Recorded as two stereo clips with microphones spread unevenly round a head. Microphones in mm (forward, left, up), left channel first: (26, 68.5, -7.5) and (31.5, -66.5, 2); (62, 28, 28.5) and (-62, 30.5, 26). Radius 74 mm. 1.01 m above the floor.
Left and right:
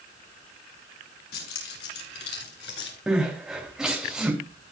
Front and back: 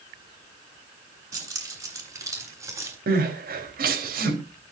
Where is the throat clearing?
No throat clearing in this recording.